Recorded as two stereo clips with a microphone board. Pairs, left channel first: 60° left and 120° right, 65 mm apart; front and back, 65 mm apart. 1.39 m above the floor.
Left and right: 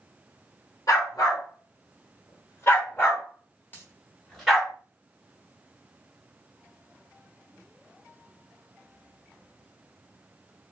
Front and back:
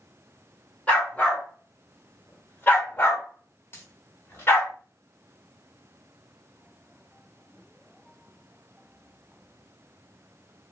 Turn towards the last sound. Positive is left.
turn(degrees=20)